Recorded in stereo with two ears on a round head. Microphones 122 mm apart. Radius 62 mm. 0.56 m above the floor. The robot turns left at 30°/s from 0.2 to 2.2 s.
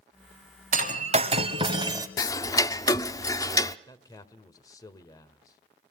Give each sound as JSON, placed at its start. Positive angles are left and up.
{"t": 0.7, "sound": "breaking glass", "azimuth_deg": -115, "distance_m": 1.1}
{"t": 2.2, "sound": "ticking", "side_deg": 25, "distance_m": 0.5}
{"t": 3.9, "sound": "a man speaking", "side_deg": 25, "distance_m": 1.7}